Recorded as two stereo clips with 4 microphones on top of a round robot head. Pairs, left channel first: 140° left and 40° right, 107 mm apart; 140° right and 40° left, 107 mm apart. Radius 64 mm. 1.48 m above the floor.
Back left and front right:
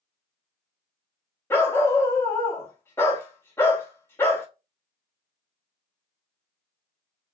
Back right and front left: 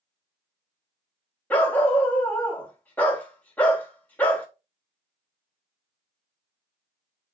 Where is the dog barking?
165° left, 0.9 m.